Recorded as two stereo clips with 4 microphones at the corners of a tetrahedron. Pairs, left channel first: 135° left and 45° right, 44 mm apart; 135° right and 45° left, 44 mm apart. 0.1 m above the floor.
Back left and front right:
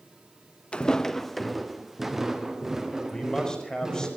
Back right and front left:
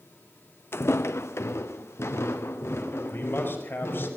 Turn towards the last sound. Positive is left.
turn(degrees=-155)